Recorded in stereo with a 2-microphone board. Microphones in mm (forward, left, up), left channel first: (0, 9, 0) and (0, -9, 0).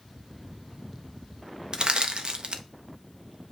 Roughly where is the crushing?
Right.